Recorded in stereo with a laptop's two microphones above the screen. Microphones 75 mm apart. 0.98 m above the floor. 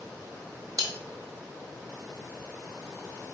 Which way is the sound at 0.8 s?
50° right (ahead or behind).